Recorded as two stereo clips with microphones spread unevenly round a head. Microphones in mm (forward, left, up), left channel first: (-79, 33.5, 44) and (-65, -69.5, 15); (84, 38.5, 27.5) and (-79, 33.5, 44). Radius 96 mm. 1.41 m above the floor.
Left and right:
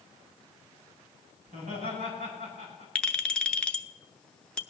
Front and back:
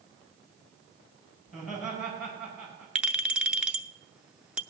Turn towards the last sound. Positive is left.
turn(degrees=120)